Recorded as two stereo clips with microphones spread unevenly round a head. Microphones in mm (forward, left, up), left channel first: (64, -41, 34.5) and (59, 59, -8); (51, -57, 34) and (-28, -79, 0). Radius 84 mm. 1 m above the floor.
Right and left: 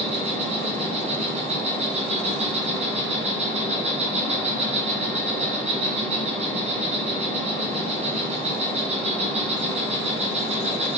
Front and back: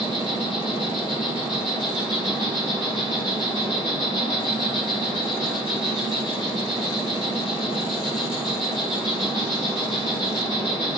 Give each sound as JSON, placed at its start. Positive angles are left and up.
{"t": 0.0, "sound": "an insect", "azimuth_deg": 85, "distance_m": 4.5}